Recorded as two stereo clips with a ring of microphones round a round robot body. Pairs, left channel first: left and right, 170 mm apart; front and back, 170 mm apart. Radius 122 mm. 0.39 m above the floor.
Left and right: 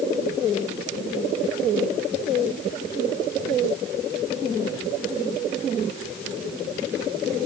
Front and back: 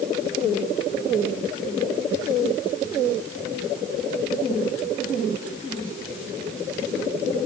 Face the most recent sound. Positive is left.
No sound to turn to.